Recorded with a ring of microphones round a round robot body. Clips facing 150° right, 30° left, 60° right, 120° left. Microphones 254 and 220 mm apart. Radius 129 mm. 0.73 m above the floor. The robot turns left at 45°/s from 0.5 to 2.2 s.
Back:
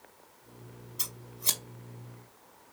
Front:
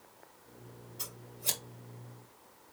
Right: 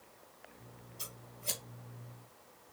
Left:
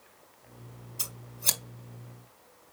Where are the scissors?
160° left, 2 m; by 1.6 s 130° left, 2 m.